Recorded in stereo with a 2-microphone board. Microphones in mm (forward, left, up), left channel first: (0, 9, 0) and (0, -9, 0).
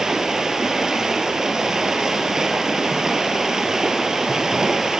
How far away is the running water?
About 1.1 m.